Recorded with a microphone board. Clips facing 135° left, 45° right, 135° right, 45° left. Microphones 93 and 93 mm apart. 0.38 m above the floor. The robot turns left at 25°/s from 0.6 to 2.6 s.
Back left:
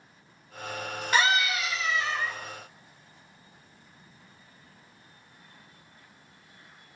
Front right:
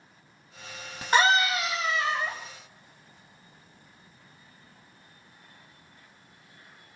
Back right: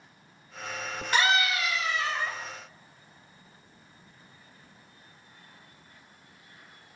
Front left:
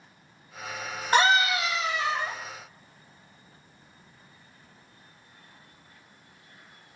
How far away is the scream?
About 2.5 m.